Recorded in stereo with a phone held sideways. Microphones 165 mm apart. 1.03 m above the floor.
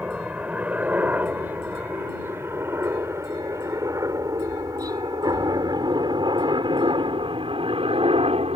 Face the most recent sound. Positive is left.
turn(degrees=-35)  # may be behind; listen again after turning